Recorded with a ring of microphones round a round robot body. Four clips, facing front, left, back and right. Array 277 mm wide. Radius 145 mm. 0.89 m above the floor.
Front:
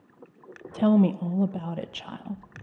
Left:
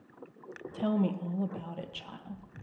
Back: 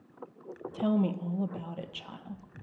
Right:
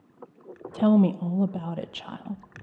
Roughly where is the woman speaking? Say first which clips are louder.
Right 9 dB, front 7 dB; ahead right.